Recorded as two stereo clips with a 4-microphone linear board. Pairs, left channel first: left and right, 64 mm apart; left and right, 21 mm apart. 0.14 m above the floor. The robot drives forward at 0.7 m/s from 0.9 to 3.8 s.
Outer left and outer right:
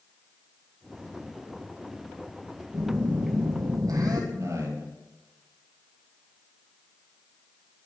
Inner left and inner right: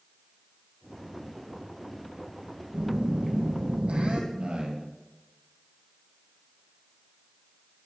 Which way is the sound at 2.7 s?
60° right (ahead or behind).